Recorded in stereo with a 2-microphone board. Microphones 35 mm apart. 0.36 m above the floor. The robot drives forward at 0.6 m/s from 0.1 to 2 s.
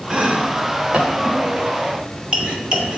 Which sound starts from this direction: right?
Chopping, at 0.1 s.